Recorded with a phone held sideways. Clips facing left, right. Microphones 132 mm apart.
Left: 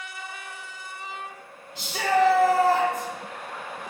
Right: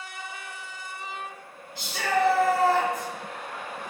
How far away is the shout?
About 0.8 m.